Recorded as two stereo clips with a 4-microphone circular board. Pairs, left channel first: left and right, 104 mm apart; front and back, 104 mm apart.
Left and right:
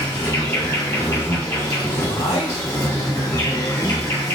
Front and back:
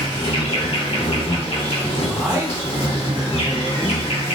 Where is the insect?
25° left, 1.7 m.